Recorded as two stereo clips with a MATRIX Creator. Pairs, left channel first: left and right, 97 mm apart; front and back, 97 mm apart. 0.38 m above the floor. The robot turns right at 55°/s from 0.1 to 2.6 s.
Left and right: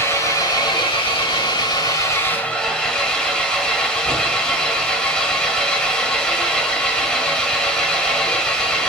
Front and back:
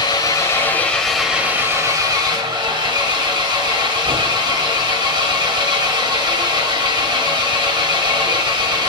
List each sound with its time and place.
0.0 s an engine running: 30° left, 1.9 m; by 8.9 s 170° left, 1.9 m